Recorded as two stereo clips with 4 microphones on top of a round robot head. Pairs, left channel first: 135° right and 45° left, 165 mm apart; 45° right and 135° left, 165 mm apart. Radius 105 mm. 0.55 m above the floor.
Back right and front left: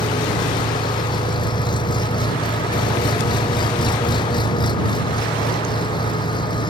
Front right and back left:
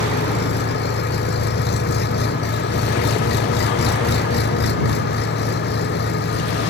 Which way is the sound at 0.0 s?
70° right.